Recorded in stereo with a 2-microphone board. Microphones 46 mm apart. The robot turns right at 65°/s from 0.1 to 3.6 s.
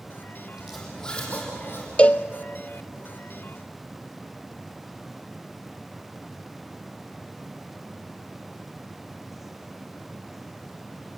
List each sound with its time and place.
0.6 s a zipper: 15° right (ahead or behind), 6 m; by 1.9 s 65° left (ahead or behind), 6 m
2.0 s a cowbell: 25° left (ahead or behind), 0.6 m; by 2.3 s 45° left (ahead or behind), 0.6 m